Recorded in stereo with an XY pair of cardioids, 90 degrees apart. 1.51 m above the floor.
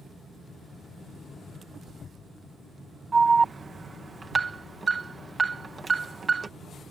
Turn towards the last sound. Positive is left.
turn(degrees=-40)